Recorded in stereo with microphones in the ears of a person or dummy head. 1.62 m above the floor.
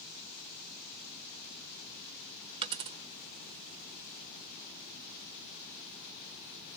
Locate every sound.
2.6 s a dropped coin: 30° right (ahead or behind), 1.3 m